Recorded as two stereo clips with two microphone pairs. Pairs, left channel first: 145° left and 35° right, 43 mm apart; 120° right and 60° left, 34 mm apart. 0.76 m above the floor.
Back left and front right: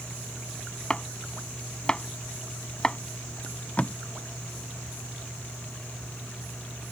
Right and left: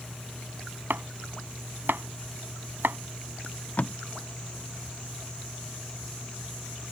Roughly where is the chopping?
Left.